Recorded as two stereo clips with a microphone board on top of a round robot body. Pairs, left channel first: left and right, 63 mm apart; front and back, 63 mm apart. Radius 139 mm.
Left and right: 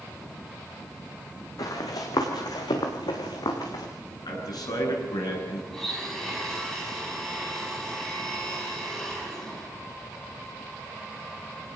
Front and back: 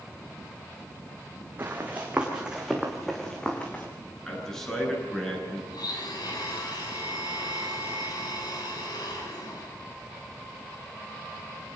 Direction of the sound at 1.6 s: 120° left.